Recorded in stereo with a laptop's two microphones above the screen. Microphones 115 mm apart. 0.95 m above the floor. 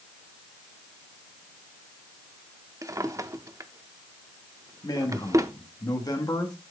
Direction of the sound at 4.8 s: 35° left (ahead or behind).